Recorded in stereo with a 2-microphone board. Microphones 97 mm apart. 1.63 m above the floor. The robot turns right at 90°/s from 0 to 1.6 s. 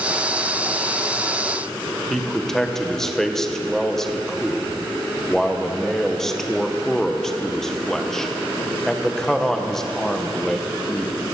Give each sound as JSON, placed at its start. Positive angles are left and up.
{"t": 2.1, "sound": "a man speaking", "side_deg": 5, "distance_m": 0.9}